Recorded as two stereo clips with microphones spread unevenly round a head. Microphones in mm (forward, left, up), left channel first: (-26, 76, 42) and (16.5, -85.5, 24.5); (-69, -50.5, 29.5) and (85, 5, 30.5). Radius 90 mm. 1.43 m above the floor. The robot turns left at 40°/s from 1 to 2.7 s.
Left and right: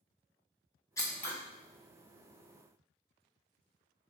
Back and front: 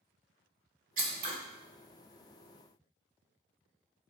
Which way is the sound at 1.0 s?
45° left.